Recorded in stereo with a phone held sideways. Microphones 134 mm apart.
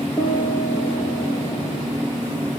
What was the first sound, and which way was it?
A piano, 30° left (ahead or behind).